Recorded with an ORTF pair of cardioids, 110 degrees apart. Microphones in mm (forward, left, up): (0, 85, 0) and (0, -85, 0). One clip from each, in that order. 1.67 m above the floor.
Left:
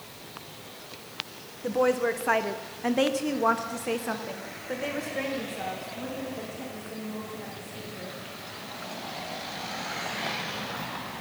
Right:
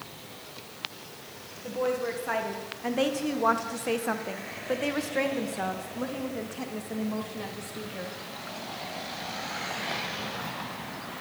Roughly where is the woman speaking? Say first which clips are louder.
Left 5 dB; ahead left.